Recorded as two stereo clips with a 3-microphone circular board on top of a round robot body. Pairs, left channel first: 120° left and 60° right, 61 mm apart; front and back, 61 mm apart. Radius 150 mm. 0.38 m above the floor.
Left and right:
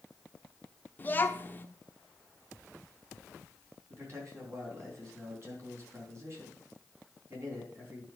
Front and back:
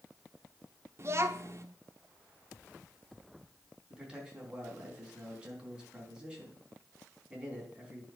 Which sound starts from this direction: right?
A man speaking, at 3.9 s.